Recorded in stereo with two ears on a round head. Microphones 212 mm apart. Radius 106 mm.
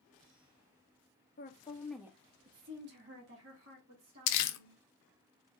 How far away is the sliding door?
No sliding door in this recording.